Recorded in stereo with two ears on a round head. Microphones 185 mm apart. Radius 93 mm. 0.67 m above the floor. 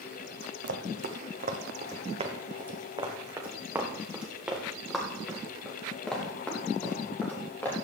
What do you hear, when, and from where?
0.6 s running footsteps: 60° right (ahead or behind), 2 m; by 7.8 s 10° left (ahead or behind), 5.5 m